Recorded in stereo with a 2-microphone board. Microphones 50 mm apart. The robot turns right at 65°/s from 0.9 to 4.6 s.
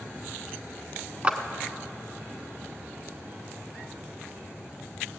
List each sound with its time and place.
1.2 s a clap: 25° right (ahead or behind), 0.9 m